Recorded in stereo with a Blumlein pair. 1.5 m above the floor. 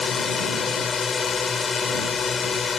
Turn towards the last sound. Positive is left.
turn(degrees=20)